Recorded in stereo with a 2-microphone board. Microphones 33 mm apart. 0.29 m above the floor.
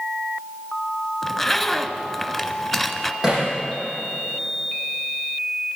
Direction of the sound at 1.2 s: Centre (ahead or behind).